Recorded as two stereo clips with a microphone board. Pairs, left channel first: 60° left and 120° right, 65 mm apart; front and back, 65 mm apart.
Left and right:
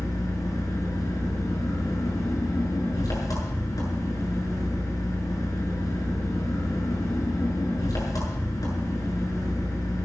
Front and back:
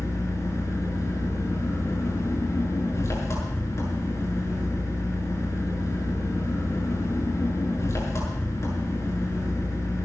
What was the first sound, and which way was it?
An engine running, 40° left.